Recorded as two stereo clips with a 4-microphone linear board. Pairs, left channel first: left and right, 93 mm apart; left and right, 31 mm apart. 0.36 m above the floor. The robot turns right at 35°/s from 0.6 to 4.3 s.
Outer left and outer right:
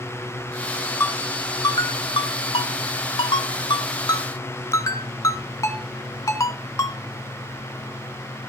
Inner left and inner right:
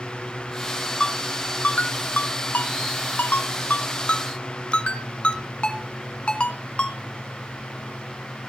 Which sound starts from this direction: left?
A ringtone, at 1.0 s.